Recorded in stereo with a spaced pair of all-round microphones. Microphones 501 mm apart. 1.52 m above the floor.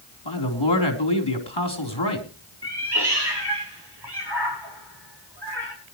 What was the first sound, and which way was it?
A man speaking, 55° left (ahead or behind).